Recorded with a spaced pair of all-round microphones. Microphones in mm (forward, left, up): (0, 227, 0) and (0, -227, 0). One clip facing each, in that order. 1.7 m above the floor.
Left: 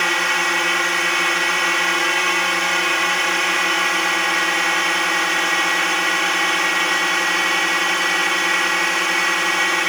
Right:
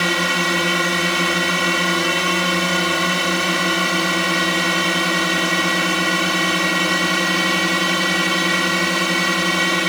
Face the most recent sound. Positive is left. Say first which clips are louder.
# right 4 dB
turn(degrees=-60)  # may be behind; listen again after turning